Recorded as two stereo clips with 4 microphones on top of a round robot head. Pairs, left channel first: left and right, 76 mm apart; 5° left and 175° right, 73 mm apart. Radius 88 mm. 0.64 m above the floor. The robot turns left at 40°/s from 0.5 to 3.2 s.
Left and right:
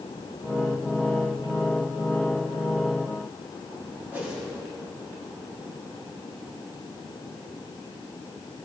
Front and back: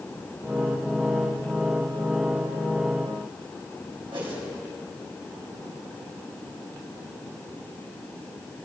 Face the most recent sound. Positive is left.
turn(degrees=-160)